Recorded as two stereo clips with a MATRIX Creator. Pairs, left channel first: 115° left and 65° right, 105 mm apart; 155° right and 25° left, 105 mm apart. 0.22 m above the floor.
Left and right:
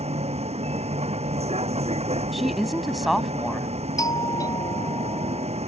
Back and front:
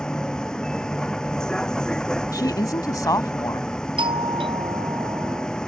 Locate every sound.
0.0 s a vehicle: 75° right
2.3 s a woman speaking: 155° right
4.0 s a doorbell: 60° left